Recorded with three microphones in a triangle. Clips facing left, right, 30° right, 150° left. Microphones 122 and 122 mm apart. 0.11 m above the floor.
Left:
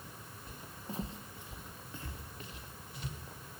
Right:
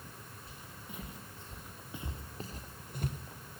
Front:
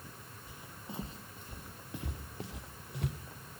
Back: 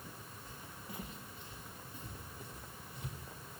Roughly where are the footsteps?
Ahead left.